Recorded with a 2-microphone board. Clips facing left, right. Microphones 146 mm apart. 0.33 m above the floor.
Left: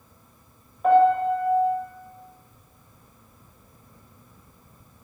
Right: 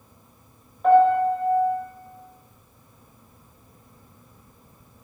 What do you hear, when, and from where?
0.8 s a piano: 5° left (ahead or behind), 1.3 m